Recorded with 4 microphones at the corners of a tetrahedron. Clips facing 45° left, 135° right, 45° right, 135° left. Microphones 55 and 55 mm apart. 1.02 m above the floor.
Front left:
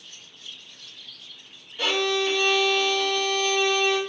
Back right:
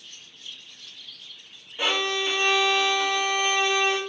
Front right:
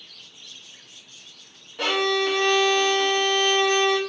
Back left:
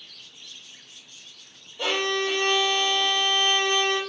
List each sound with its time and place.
1.8 s a violin: 65° right, 0.6 m